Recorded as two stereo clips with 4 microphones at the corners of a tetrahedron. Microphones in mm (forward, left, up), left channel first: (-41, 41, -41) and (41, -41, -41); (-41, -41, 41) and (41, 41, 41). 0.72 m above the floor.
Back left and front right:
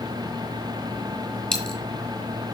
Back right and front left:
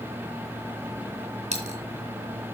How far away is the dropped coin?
About 2 m.